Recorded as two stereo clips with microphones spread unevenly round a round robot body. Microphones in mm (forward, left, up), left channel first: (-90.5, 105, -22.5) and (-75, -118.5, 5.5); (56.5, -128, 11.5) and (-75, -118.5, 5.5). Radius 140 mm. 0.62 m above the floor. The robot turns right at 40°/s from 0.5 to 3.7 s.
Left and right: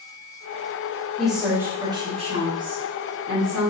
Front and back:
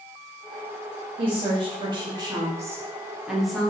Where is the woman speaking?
170° left, 1.1 m; by 3.7 s 85° right, 1.1 m.